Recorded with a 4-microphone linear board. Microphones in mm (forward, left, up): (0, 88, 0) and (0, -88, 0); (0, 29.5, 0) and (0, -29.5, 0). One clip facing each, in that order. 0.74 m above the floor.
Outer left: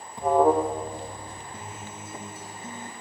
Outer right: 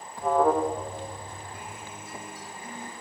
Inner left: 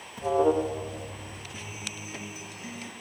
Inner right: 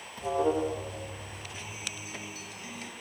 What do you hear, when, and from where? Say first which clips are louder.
0.2 s an alarm: outer left 3 dB, inner left 4 dB; 20° left (ahead or behind), 1.4 m
1.5 s a guitar: outer left 1 dB, inner left 1 dB; 20° left (ahead or behind), 3 m